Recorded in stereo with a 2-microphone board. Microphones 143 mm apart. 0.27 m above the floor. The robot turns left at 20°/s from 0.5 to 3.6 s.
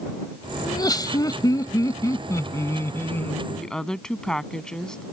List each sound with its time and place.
0.6 s laughter: 30° left (ahead or behind); by 3.4 s 15° left (ahead or behind)
3.5 s a woman speaking: 5° left (ahead or behind)